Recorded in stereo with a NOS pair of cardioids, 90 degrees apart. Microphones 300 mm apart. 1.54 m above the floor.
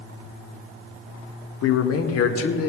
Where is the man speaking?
55° left, 1.2 m; by 2.7 s 50° left, 1.8 m.